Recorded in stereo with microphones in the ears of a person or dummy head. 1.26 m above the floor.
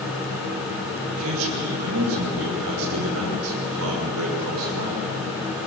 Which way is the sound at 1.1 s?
85° right.